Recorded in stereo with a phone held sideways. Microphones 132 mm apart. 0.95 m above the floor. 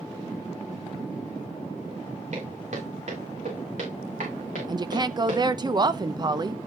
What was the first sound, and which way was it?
Footsteps, 70° right (ahead or behind).